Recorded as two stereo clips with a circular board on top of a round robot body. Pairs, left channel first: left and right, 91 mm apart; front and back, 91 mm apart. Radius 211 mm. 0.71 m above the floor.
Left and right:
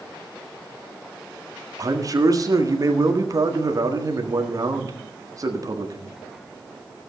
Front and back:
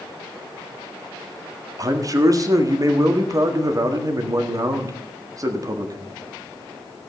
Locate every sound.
1.8 s a man speaking: 135° right, 1.9 m